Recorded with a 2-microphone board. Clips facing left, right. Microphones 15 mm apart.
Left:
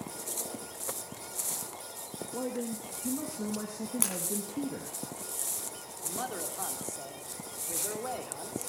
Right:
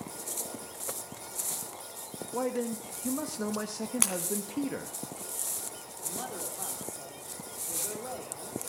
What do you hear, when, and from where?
2.3 s a man speaking: 50° right (ahead or behind), 0.7 m
4.0 s breaking glass: 25° right (ahead or behind), 2 m
6.0 s a man speaking: 20° left (ahead or behind), 1.6 m